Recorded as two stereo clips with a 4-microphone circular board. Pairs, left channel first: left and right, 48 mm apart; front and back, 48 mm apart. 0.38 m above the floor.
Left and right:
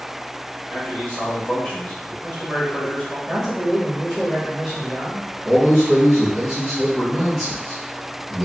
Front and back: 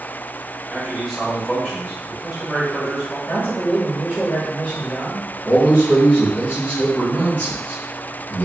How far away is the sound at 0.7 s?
About 1.1 m.